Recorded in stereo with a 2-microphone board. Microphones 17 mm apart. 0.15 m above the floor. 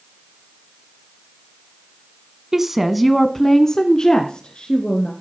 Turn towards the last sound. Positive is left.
turn(degrees=60)  # may be behind; listen again after turning